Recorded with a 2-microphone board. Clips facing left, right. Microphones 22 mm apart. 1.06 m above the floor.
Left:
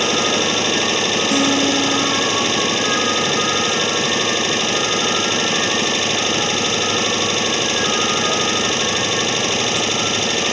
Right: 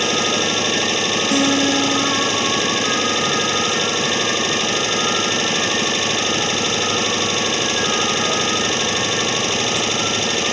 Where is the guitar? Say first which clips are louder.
Right 1 dB; 10° right (ahead or behind).